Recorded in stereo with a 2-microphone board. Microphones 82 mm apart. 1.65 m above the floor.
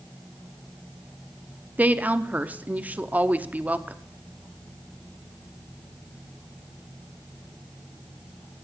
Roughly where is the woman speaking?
Centre.